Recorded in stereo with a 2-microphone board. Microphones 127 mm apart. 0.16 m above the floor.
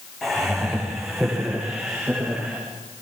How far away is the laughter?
About 10 m.